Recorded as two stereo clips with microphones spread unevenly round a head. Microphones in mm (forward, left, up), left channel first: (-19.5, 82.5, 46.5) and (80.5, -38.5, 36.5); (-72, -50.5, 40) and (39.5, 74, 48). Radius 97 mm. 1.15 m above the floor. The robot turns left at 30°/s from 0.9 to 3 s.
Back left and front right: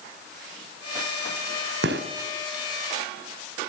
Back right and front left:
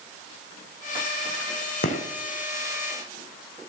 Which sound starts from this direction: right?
A gunshot, at 1.8 s.